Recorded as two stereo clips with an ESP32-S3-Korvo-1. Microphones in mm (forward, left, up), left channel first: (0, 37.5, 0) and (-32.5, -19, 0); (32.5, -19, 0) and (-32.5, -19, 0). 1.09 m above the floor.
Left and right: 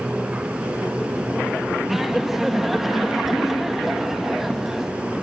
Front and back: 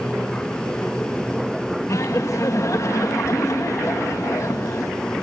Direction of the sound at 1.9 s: 35° right.